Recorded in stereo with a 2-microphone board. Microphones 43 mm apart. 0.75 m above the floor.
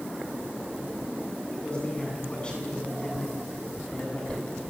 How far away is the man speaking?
About 9 m.